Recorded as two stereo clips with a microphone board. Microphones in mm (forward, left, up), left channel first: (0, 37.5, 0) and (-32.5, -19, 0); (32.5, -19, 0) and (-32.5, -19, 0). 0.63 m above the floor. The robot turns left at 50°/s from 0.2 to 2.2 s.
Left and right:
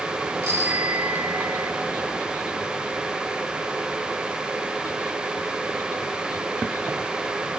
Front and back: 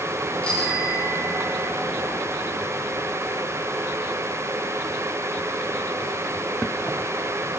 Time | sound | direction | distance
0.4 | a bicycle bell | 70° right | 6 m